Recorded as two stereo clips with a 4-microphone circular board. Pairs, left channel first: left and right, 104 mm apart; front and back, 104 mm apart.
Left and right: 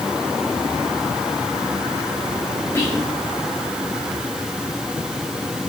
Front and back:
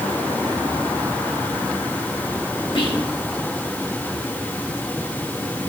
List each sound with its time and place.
2.8 s whispering: 30° left, 1.7 m